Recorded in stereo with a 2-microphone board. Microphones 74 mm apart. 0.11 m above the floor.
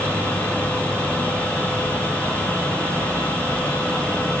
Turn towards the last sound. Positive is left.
No sound to turn to.